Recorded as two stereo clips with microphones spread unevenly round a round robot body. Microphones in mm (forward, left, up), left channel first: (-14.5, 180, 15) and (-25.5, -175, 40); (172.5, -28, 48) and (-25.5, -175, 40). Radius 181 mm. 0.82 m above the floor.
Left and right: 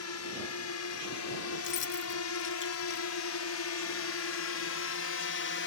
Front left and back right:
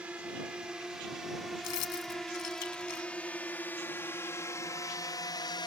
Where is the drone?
130° left; by 5.7 s 100° left.